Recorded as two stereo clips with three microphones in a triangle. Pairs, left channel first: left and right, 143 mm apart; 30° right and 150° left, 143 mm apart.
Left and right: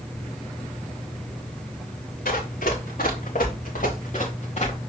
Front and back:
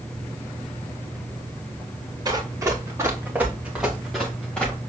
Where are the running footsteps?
85° left, 3.5 m; by 4.8 s 50° left, 3 m.